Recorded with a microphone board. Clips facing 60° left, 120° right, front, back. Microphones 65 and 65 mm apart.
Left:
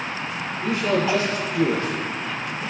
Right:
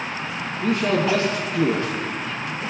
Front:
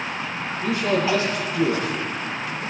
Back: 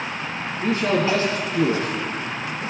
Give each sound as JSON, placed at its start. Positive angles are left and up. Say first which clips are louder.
{"t": 0.6, "sound": "a man speaking", "louder": "right 1 dB, back 1 dB", "azimuth_deg": -125, "distance_m": 2.5}